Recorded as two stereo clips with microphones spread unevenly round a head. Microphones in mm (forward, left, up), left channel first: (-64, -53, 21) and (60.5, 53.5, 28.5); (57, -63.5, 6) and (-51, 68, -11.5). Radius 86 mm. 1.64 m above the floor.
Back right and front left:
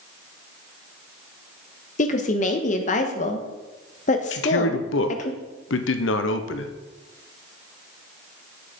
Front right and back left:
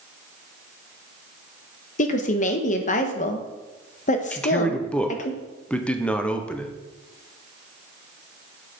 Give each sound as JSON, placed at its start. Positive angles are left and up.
{"t": 2.0, "sound": "a woman speaking", "azimuth_deg": -95, "distance_m": 1.3}
{"t": 4.3, "sound": "a man speaking", "azimuth_deg": -135, "distance_m": 1.0}